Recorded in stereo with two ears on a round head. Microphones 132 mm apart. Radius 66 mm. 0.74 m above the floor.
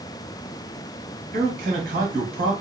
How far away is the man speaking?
About 1.4 m.